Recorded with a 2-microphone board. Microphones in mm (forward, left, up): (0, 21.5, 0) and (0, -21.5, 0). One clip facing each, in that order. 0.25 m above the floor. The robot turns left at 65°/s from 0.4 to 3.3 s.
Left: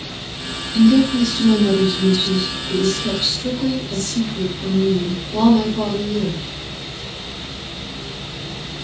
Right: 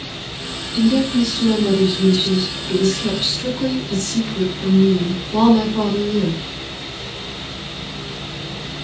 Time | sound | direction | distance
0.7 | a woman speaking | 55° left | 2.5 m